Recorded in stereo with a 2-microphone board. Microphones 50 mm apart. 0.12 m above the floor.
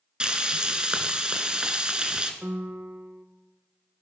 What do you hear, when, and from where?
0.2 s frying: 20° right (ahead or behind), 1.3 m
2.4 s a piano: 35° right (ahead or behind), 0.7 m